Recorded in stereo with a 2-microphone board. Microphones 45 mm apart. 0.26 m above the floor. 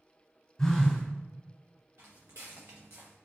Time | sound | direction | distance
0.6 | a phone buzzing | 10° left (ahead or behind) | 1.0 m
2.0 | footsteps | 80° right | 1.2 m